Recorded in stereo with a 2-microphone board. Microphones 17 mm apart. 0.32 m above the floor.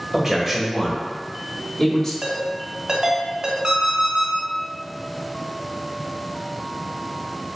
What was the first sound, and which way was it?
A man speaking, 25° right (ahead or behind).